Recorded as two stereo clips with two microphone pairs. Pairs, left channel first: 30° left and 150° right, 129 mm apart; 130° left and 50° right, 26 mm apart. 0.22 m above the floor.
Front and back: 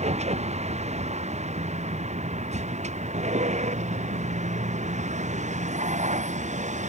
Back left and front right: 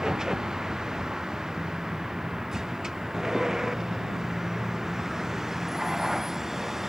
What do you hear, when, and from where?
0.0 s a vehicle: 120° right; by 6.9 s 130° right